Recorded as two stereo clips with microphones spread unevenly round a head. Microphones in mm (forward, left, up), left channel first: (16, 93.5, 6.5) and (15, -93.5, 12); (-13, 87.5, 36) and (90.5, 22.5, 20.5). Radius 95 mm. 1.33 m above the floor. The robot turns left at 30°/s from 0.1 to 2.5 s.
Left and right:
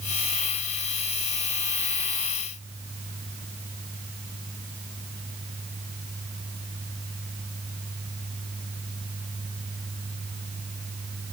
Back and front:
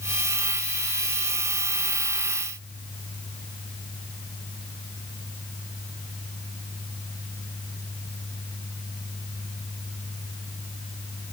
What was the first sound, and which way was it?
Only background noise.